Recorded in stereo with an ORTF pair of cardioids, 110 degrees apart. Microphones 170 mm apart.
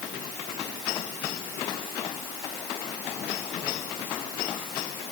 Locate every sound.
Only background noise.